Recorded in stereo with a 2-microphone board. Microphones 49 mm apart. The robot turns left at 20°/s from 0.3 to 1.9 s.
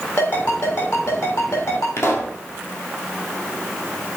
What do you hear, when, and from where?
0.2 s a ringtone: 50° left (ahead or behind), 3.5 m; by 1.9 s 70° left (ahead or behind), 3.5 m
2.0 s a pop: 60° left (ahead or behind), 1.5 m